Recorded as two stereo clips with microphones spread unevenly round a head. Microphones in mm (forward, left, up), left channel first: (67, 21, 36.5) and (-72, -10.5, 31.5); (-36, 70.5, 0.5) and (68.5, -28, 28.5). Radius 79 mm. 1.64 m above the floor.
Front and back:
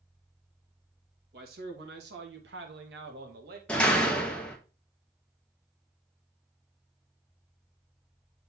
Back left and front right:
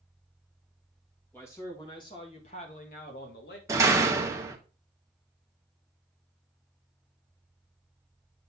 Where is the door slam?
60° right, 0.8 m.